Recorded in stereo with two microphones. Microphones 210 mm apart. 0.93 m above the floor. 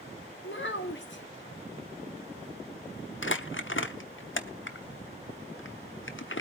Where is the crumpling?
65° left (ahead or behind), 1.0 m.